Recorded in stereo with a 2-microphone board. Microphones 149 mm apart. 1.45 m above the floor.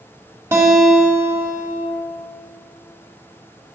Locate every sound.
0.5 s a guitar: 20° right (ahead or behind), 1.3 m